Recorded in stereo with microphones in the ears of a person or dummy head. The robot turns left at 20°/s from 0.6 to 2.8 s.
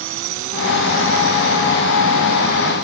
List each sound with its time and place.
0.0 s a drone: 65° right (ahead or behind); by 2.9 s 55° right (ahead or behind)